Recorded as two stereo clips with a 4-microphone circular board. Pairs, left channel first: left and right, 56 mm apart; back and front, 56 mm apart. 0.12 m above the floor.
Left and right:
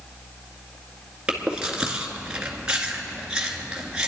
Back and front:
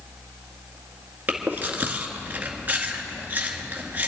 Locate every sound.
1.3 s chewing: 30° right, 1.7 m